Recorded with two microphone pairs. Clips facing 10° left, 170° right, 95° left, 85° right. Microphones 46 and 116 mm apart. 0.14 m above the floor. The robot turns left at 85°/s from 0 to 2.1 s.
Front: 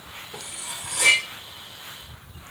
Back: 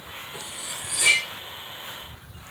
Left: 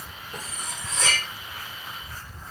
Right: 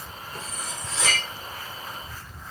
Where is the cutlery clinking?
50° left, 6.5 m; by 1.2 s 25° right, 6.5 m.